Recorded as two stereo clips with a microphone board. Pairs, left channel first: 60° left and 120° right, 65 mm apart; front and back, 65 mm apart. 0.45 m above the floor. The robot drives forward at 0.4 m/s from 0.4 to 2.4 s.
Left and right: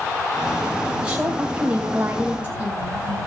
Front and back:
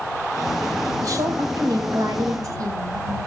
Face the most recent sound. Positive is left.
turn(degrees=170)